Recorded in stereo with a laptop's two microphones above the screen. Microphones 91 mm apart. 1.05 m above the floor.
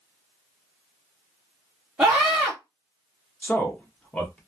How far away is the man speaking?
About 1.1 m.